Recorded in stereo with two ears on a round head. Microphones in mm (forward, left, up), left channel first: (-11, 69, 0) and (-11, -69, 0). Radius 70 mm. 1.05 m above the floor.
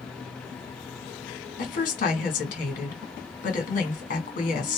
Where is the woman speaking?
55° left (ahead or behind), 1.8 m.